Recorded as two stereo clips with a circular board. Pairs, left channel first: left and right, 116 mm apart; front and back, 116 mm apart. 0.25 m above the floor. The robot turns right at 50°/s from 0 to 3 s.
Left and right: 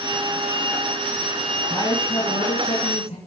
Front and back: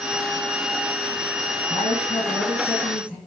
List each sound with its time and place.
1.7 s a man speaking: 30° left, 4.5 m; by 3.2 s 95° left, 4.5 m